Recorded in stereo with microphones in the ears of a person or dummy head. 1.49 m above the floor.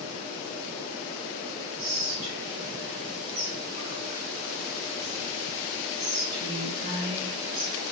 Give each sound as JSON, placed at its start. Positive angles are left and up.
{"t": 1.8, "sound": "whispering", "side_deg": -55, "distance_m": 2.0}